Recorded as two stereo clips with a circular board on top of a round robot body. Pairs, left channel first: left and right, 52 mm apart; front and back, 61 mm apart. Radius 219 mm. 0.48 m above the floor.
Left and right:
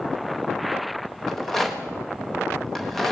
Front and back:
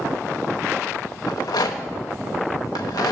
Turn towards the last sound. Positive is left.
turn(degrees=5)